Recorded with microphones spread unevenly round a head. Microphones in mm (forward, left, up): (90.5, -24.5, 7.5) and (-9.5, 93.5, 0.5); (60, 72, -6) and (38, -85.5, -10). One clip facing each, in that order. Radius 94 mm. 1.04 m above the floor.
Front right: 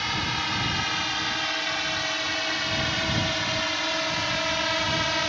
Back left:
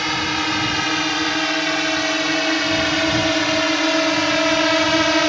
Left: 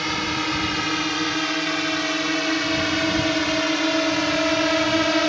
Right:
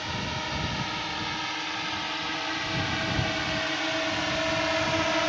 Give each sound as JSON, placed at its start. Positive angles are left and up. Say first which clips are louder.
{"t": 0.0, "sound": "a drone", "louder": "back left 8 dB, left 8 dB", "azimuth_deg": 110}